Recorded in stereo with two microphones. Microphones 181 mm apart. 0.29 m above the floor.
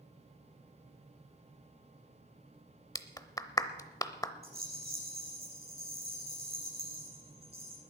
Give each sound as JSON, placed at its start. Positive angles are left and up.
{"t": 3.0, "sound": "a clap", "side_deg": 20, "distance_m": 0.7}
{"t": 4.4, "sound": "a rattle", "side_deg": -60, "distance_m": 5.0}